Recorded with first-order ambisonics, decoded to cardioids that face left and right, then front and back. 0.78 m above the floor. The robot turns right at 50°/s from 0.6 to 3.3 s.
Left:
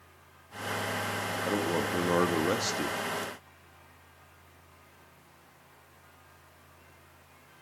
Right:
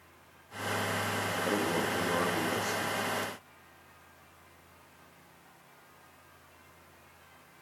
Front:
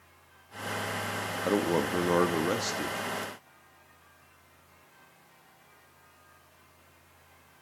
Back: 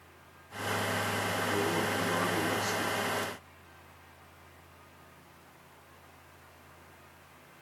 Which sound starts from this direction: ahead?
A man speaking, at 1.4 s.